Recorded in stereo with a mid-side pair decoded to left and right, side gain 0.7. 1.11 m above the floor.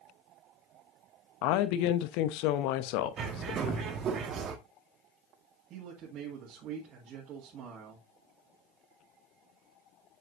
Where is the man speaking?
50° right, 2.0 m.